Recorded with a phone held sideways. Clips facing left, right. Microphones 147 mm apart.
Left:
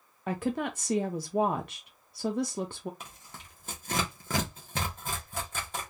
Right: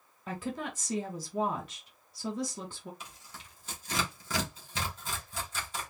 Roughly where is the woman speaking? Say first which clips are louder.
Left 6 dB; left.